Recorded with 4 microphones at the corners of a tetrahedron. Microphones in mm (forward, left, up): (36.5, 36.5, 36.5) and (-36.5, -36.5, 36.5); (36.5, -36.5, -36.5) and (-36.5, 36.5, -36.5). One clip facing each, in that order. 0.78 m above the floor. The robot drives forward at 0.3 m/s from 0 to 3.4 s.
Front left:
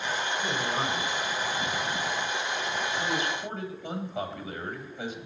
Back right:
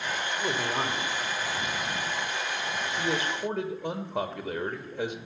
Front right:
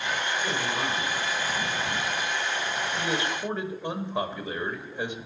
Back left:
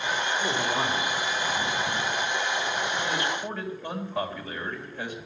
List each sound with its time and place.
0.3 s a man speaking: 155° right, 2.5 m; by 2.0 s 160° right, 3 m
3.0 s a man speaking: 110° right, 2.5 m; by 5.2 s 115° right, 2.5 m